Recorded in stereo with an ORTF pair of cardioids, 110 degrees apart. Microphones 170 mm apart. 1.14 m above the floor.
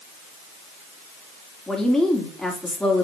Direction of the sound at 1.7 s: 5° left.